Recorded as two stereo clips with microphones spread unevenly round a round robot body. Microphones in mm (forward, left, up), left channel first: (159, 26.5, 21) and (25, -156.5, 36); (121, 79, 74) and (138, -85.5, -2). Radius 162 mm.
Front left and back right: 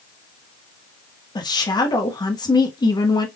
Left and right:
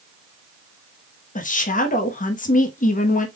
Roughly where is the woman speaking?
Ahead left.